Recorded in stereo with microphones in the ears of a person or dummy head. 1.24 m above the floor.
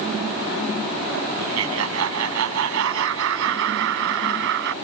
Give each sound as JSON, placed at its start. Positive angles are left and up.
{"t": 1.4, "sound": "laughter", "side_deg": -85}